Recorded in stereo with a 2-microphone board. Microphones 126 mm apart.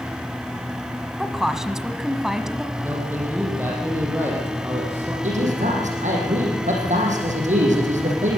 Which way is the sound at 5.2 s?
80° right.